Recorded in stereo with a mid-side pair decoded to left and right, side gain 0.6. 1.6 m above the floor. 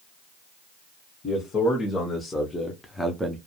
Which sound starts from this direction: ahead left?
A man speaking, at 1.2 s.